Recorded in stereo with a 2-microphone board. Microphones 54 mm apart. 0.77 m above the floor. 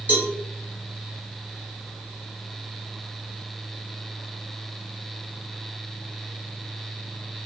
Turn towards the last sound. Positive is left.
turn(degrees=-30)  # may be behind; listen again after turning